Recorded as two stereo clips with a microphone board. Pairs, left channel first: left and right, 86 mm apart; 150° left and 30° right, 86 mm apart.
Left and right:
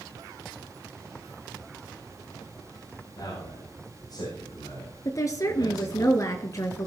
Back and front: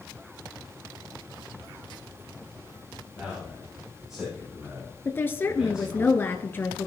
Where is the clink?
I don't hear a clink.